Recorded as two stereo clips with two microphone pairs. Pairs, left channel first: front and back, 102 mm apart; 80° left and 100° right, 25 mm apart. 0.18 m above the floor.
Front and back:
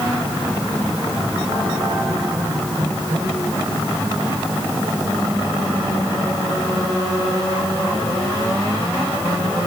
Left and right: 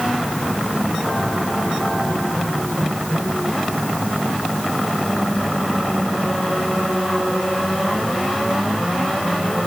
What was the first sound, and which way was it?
Only background noise.